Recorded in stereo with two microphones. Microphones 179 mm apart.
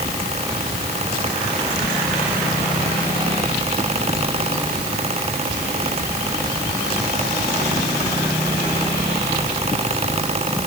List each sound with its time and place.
Only background noise.